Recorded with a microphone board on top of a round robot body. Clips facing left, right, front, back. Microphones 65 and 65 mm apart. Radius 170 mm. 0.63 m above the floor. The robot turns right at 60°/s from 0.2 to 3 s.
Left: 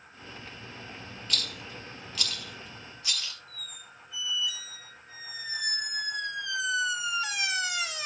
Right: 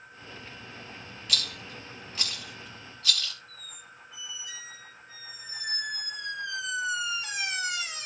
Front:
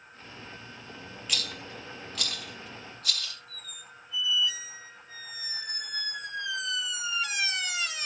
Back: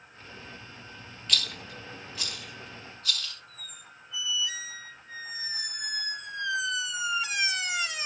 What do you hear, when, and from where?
1.3 s a rattle: 85° right, 2.5 m; by 3.3 s 20° left, 2.5 m
3.5 s a squeak: 95° left, 1.5 m